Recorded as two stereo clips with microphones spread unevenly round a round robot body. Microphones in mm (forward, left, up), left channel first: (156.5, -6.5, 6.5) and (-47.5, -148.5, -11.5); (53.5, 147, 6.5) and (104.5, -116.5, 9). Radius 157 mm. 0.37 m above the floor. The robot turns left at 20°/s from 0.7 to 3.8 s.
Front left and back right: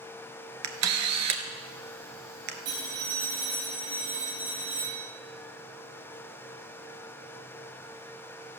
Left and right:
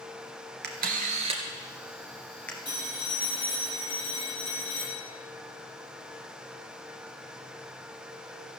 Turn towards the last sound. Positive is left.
turn(degrees=150)